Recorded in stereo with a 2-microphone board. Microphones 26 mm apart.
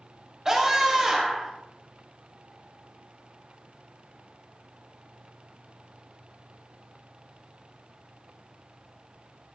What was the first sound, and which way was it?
A scream, 20° right (ahead or behind).